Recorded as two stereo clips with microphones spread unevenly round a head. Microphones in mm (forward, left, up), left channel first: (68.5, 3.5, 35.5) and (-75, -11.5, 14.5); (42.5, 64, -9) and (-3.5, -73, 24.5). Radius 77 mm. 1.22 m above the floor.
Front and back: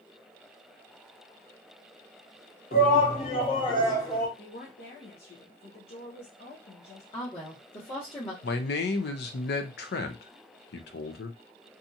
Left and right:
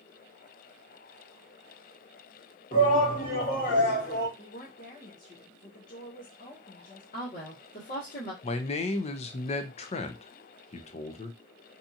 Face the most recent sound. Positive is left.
turn(degrees=25)